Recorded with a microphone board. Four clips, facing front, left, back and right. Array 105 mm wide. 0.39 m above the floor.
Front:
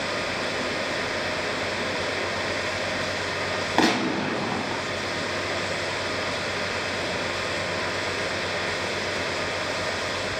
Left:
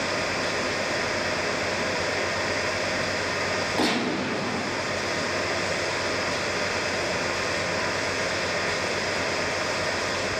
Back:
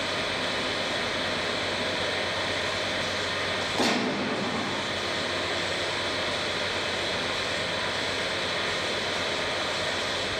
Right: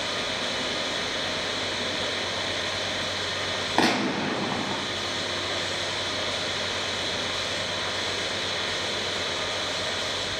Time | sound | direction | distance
3.8 | a gunshot | 40° right | 1.5 m